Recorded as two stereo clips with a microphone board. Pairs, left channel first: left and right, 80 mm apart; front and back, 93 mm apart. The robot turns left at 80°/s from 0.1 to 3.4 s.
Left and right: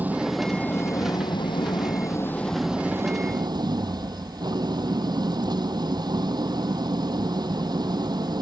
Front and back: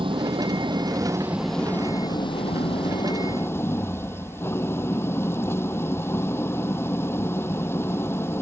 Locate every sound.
0.0 s an engine running: 160° right; by 8.4 s 60° right